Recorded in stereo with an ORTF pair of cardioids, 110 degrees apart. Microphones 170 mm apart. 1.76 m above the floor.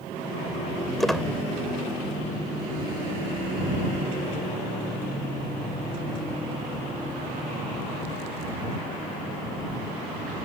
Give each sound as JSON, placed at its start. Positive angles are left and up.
{"t": 1.0, "sound": "a squeak", "azimuth_deg": 0}